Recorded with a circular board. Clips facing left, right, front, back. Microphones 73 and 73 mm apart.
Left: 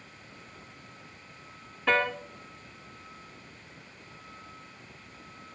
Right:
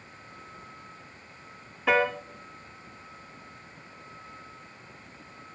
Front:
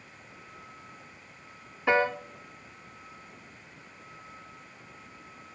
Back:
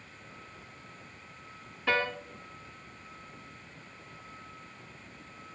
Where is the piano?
15° right, 0.9 m.